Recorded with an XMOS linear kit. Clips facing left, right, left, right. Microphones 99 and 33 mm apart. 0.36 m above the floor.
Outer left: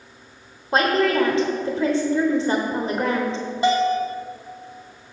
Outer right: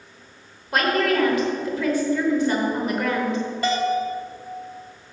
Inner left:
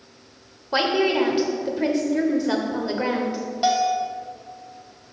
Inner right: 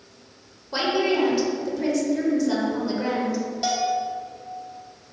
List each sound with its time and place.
0.7 s a woman speaking: 30° left (ahead or behind), 0.9 m
3.6 s a bell: 20° left (ahead or behind), 1.0 m